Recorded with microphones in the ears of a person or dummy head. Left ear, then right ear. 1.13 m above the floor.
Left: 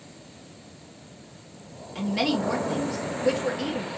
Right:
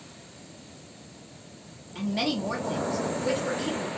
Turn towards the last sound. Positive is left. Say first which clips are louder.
# left 3 dB
turn(degrees=20)  # may be behind; listen again after turning